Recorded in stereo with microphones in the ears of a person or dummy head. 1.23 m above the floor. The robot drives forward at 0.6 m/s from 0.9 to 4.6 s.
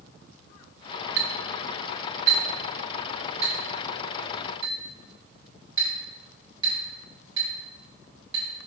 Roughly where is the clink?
Right.